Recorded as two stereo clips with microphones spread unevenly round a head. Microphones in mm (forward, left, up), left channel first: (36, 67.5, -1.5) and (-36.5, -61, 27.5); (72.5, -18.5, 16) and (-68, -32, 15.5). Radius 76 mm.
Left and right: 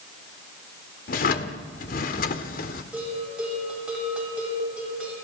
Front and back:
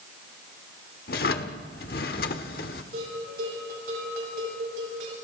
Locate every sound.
1.1 s a drawer: 25° left, 1.1 m
2.9 s a bell: 155° left, 8 m